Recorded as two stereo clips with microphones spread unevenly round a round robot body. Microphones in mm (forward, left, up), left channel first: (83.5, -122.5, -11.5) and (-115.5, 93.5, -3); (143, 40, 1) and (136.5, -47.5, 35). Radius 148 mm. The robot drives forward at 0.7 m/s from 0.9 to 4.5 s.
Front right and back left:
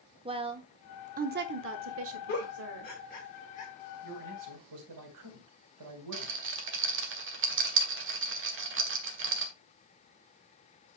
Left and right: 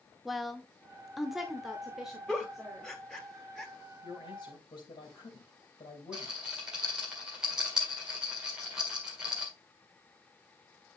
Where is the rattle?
160° left, 1.6 m.